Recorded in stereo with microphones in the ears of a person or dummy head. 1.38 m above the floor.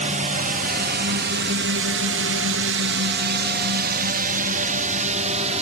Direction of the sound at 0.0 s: 40° right (ahead or behind).